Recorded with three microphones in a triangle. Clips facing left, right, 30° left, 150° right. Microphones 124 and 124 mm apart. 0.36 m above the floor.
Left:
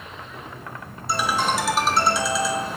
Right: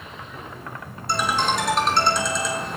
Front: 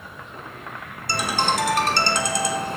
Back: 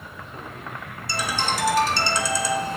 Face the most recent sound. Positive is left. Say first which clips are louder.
# even, front 3 dB
turn(degrees=5)